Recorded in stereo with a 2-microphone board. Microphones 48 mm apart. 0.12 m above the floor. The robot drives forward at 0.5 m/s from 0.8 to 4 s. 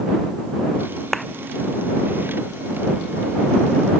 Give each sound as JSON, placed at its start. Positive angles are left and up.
{"t": 1.1, "sound": "a clap", "side_deg": 5}